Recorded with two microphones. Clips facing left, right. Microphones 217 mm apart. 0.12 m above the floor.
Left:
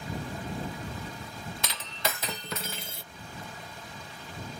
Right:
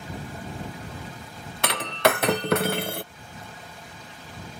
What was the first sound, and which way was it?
Breaking glass, 65° right (ahead or behind).